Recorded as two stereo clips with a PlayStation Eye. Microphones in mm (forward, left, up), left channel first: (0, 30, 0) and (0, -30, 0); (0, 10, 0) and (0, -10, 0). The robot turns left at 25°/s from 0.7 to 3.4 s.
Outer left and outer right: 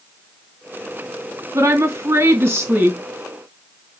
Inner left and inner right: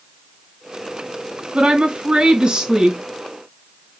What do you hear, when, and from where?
1.5 s a woman speaking: 100° right, 2.5 m; by 3.0 s 135° right, 2.5 m